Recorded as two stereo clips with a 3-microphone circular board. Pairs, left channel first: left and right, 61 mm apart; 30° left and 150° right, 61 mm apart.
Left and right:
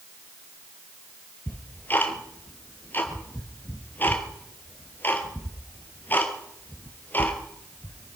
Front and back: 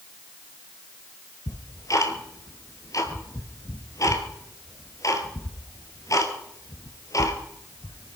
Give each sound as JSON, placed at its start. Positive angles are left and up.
{"t": 1.5, "sound": "ticking", "azimuth_deg": 35, "distance_m": 1.8}